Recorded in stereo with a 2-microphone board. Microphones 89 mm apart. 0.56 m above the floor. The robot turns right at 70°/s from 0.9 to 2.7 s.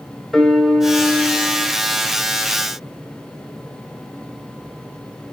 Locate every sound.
0.3 s a piano: 5° left, 1.6 m; by 1.8 s 65° left, 1.6 m